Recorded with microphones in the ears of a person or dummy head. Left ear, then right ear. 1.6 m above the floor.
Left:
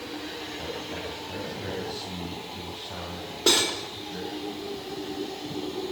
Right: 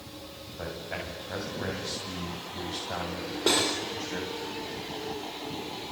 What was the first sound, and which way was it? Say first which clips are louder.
A man speaking: right 2 dB; 70° right (ahead or behind).